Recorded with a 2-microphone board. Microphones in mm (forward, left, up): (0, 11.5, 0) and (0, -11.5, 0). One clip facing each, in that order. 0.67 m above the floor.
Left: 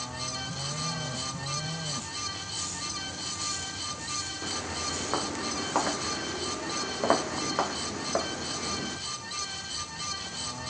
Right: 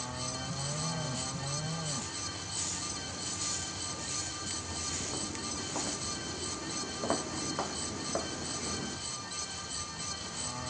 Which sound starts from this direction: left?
Footsteps, at 4.4 s.